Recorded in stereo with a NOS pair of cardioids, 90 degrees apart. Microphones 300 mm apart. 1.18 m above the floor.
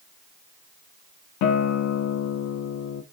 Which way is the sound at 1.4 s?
70° left.